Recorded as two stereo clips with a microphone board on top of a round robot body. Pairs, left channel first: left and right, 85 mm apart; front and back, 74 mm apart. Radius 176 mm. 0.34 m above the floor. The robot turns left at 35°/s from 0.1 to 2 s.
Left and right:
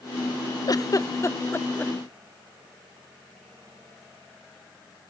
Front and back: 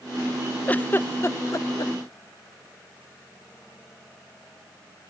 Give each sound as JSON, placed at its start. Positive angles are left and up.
{"t": 0.7, "sound": "a giggle", "azimuth_deg": 65}